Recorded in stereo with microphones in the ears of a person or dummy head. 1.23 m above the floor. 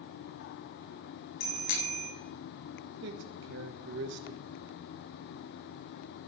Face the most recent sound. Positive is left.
turn(degrees=-60)  # may be behind; listen again after turning